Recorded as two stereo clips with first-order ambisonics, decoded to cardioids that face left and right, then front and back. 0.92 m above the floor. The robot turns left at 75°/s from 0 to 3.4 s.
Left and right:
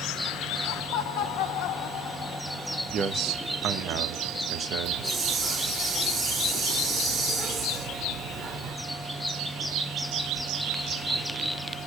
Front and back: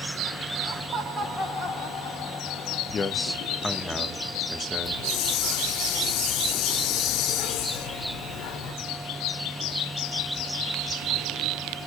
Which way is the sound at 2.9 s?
55° right.